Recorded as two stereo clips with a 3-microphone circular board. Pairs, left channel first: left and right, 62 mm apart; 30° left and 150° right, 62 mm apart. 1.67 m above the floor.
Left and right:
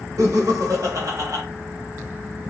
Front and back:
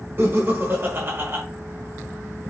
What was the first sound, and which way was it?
Laughter, 100° right.